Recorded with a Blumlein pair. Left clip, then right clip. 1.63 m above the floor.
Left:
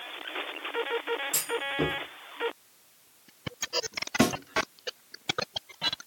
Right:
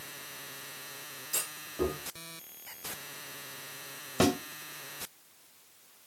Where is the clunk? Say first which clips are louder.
Left 6 dB; 30° left, 1.3 m.